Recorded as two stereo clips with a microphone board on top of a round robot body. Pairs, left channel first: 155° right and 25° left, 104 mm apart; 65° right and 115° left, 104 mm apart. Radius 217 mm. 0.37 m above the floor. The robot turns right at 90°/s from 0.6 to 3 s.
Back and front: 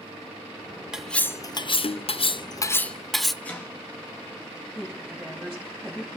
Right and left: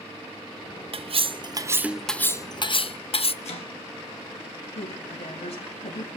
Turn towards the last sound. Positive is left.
turn(degrees=-60)